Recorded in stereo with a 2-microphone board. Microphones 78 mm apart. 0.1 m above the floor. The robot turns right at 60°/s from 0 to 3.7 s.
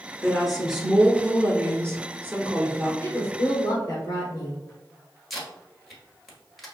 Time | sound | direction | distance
0.2 | a woman speaking | 5° left (ahead or behind) | 1.2 m
3.0 | a woman speaking | 30° left | 1.4 m
5.3 | tape being pulled | centre (ahead or behind) | 1.3 m